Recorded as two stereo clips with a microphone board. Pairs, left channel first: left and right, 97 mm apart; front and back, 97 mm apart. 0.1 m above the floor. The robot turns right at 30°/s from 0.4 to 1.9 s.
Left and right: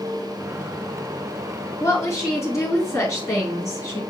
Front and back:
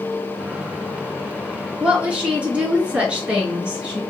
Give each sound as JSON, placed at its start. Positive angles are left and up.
{"t": 1.8, "sound": "a woman speaking", "azimuth_deg": 110, "distance_m": 1.7}